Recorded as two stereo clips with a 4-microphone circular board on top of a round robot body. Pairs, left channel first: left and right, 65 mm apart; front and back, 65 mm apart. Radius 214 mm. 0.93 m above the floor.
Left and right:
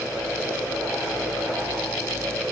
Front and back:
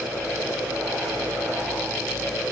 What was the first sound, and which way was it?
Only background noise.